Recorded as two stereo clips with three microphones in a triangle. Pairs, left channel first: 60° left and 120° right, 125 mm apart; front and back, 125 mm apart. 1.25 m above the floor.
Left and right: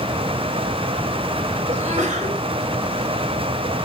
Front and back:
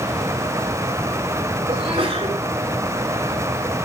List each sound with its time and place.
1.7 s a sneeze: 145° right, 4 m